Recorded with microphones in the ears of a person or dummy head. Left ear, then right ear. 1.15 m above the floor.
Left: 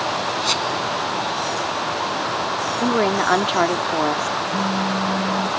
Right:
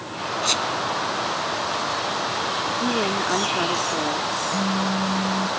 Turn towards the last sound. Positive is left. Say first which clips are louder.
# left 2 dB
turn(degrees=-30)  # may be behind; listen again after turning